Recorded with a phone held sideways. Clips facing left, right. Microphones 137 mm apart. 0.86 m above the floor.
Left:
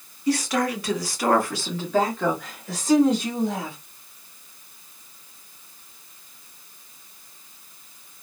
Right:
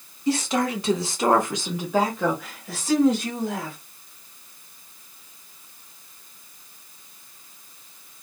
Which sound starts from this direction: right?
A woman speaking, at 0.3 s.